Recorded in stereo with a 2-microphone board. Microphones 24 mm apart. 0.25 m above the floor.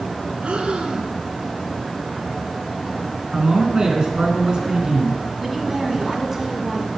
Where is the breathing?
60° right (ahead or behind), 0.9 m.